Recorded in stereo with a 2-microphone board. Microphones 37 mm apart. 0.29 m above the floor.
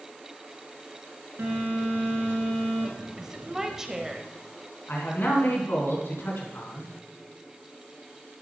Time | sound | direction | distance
1.4 | a phone buzzing | 65° right (ahead or behind) | 2.5 m
3.2 | a woman speaking | 15° right (ahead or behind) | 1.0 m
4.9 | a man speaking | 65° left (ahead or behind) | 3.5 m